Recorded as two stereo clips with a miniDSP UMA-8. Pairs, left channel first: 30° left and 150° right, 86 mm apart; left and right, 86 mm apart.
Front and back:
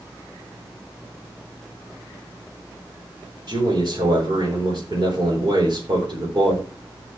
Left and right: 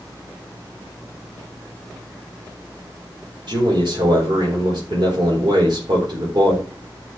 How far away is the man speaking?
About 4 m.